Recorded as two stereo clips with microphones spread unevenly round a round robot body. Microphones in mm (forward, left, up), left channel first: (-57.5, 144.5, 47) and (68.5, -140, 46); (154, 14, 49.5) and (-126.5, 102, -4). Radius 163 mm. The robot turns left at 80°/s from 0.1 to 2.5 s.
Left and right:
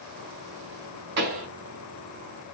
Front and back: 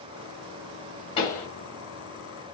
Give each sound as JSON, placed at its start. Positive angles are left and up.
{"t": 1.2, "sound": "a pop", "azimuth_deg": -95, "distance_m": 1.6}